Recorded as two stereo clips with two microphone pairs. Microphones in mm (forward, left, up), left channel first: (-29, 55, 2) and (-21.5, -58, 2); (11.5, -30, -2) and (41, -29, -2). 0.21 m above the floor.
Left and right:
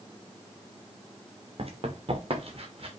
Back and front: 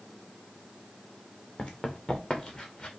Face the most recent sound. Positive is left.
turn(degrees=-120)